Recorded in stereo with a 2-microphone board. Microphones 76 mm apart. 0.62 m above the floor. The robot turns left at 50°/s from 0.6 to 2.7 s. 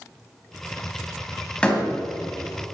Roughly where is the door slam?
Centre.